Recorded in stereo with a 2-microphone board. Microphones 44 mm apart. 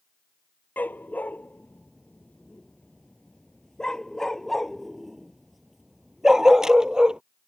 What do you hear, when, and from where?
0.8 s a dog barking: 45° left (ahead or behind); by 7.2 s 15° right (ahead or behind)